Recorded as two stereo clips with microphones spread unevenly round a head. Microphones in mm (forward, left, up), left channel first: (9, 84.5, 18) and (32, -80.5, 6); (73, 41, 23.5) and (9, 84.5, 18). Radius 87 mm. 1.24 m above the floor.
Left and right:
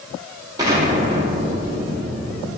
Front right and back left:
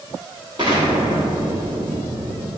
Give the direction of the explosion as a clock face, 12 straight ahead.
5 o'clock.